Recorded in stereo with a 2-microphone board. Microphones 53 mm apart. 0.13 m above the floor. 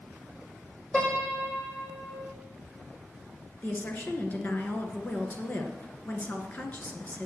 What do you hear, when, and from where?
0.9 s a piano: 20° left (ahead or behind), 7 m
3.6 s a woman speaking: 30° left (ahead or behind), 2.0 m